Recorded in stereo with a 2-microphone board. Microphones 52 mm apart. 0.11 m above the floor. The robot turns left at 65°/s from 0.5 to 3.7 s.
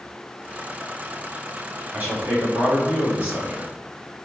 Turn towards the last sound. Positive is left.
turn(degrees=-165)